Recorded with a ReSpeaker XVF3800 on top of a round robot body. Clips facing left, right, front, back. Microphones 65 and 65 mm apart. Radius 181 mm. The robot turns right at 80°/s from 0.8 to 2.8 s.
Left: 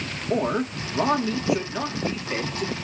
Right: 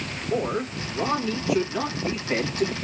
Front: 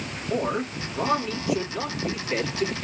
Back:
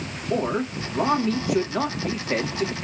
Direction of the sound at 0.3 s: 100° left.